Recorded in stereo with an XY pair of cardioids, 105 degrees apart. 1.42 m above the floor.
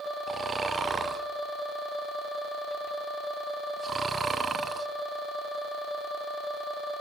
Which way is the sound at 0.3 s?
35° right.